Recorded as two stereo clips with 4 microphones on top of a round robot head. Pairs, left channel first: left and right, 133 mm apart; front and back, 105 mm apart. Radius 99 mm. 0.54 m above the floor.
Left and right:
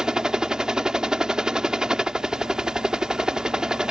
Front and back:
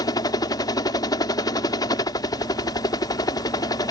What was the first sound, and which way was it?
A helicopter, 10° right.